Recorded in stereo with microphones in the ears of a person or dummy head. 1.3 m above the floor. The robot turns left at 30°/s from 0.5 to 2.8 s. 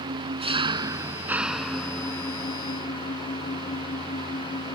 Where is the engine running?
145° right; by 4.8 s 145° left.